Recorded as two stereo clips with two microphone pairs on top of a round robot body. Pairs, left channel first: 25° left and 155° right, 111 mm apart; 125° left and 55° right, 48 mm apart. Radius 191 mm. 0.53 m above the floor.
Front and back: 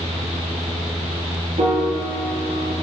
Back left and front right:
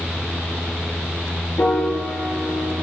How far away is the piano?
About 5 m.